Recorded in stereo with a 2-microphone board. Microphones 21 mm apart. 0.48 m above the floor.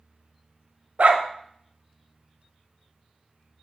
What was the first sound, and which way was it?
A dog barking, 70° right (ahead or behind).